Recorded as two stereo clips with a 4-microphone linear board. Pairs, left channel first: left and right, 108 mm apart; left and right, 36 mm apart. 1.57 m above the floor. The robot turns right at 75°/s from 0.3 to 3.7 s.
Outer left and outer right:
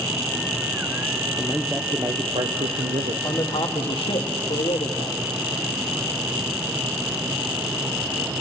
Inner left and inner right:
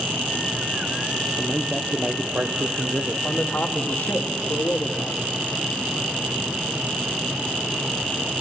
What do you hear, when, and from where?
1.4 s a man speaking: 165° left, 1.1 m; by 3.1 s 60° right, 1.1 m
3.2 s a man speaking: 25° left, 1.7 m; by 5.2 s 60° left, 1.7 m